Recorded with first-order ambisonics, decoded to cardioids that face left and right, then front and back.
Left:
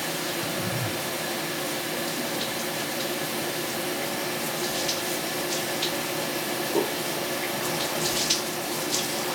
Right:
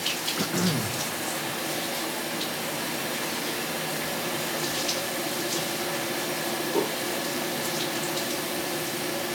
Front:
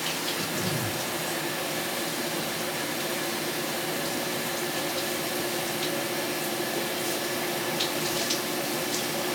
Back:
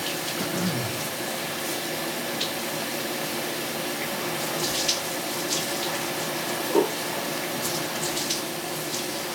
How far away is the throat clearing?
About 2.5 m.